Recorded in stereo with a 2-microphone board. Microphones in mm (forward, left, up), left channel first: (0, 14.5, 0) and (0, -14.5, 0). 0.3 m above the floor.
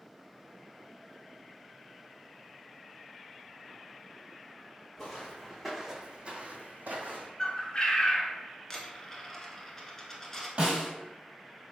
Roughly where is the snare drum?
Right.